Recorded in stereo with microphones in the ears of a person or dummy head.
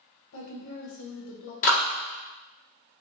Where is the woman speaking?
85° left, 1.1 m.